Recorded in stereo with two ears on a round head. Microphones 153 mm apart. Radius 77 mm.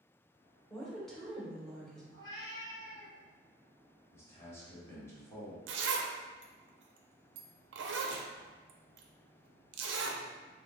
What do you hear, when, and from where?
0.7 s a woman speaking: centre (ahead or behind), 1.2 m
2.1 s a cat meowing: 25° left (ahead or behind), 0.9 m
4.1 s a man speaking: 15° left (ahead or behind), 1.4 m
5.7 s a zipper: 70° right (ahead or behind), 0.5 m